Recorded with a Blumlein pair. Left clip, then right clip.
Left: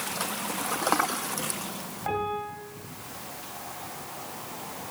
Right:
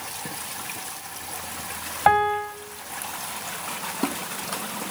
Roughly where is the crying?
No crying in this recording.